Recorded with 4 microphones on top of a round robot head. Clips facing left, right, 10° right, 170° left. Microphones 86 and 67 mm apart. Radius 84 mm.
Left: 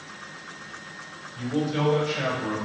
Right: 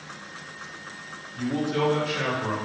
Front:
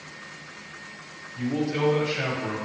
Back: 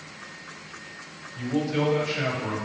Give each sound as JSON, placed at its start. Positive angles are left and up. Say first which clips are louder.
{"t": 1.4, "sound": "a man speaking", "louder": "right 1 dB, even", "azimuth_deg": -55, "distance_m": 1.8}